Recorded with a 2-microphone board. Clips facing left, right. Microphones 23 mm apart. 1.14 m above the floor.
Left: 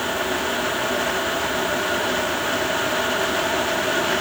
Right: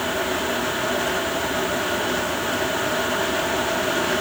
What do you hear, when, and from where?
Only background noise.